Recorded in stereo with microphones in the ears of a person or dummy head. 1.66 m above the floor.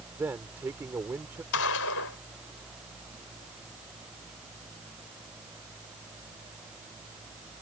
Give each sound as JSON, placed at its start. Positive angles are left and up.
{"t": 0.2, "sound": "a man speaking", "side_deg": -10}
{"t": 1.5, "sound": "a gunshot", "side_deg": 85}